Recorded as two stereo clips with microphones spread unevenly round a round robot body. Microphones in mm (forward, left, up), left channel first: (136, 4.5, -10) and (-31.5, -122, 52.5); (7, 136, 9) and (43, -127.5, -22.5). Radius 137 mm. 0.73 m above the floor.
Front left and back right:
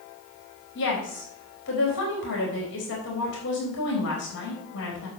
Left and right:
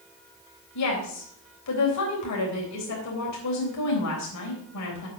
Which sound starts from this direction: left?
A woman speaking, at 0.8 s.